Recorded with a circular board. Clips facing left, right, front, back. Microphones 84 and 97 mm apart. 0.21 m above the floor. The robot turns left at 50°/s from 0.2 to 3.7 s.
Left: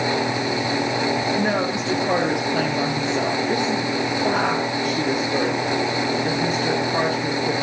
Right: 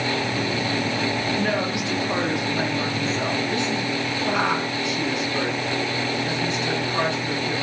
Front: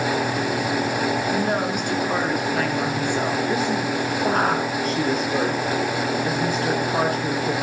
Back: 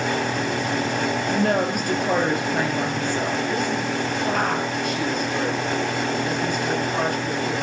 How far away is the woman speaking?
About 3.5 m.